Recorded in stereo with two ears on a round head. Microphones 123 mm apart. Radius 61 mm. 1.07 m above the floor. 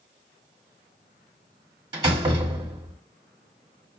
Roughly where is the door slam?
Right.